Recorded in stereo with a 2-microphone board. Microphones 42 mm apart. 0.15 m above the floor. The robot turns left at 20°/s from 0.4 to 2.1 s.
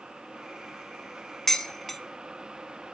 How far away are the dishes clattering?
About 0.8 m.